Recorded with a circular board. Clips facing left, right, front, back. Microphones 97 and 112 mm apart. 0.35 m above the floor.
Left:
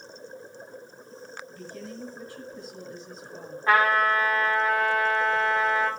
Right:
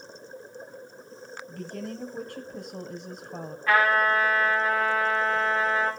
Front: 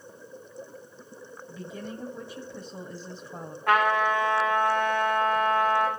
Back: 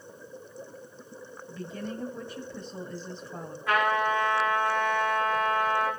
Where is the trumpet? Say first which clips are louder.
Left 1 dB, front 3 dB; 30° left, 9.5 m.